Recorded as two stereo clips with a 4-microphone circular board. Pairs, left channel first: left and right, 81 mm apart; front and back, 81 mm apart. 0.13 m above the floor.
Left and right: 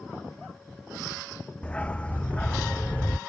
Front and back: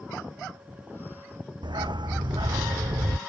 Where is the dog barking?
165° left.